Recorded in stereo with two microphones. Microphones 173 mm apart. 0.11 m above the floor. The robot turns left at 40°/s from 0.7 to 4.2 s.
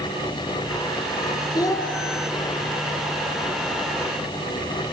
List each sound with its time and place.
1.6 s a child speaking: 25° left (ahead or behind), 1.2 m; by 1.9 s 15° left (ahead or behind), 1.2 m